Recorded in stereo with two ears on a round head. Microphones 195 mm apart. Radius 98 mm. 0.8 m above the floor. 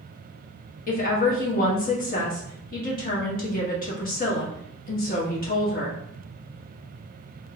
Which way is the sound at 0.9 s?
40° left (ahead or behind).